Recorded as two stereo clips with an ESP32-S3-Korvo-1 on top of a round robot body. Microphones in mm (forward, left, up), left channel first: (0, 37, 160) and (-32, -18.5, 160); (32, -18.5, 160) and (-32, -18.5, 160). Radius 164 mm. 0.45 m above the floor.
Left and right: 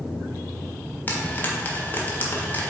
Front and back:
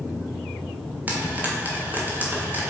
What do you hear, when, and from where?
1.1 s frying: 115° left, 1.7 m